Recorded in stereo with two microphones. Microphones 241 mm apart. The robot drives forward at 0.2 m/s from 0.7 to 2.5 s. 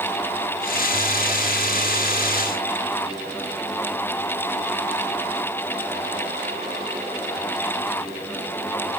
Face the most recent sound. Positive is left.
No sound to turn to.